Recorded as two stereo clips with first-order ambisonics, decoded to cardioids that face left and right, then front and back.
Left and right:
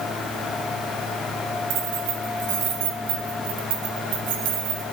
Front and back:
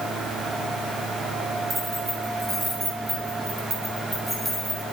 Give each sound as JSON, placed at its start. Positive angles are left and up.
{"t": 1.7, "sound": "keys jangling", "azimuth_deg": -100, "distance_m": 3.5}